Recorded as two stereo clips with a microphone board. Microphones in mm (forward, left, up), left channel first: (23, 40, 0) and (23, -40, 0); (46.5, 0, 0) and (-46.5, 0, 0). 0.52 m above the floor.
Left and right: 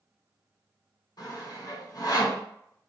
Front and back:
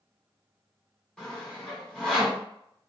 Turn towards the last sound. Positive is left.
turn(degrees=80)